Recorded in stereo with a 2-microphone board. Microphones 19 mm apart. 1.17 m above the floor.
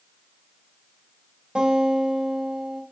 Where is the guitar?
65° right (ahead or behind), 6 m.